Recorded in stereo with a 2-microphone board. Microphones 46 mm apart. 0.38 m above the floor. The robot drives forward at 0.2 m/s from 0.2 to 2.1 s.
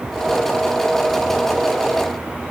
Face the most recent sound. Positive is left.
No sound to turn to.